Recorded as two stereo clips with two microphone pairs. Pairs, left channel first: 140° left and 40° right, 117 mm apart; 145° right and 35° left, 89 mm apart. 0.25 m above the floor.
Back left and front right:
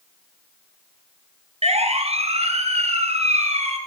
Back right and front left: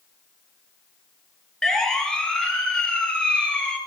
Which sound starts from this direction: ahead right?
A siren, at 1.6 s.